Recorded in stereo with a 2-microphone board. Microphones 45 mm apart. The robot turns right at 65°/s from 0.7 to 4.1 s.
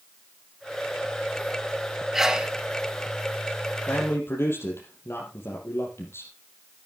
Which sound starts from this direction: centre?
A sneeze, at 2.1 s.